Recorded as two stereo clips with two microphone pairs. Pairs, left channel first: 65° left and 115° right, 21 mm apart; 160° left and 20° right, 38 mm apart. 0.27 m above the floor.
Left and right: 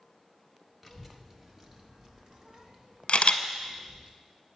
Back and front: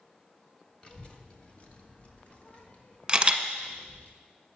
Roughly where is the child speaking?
Behind left.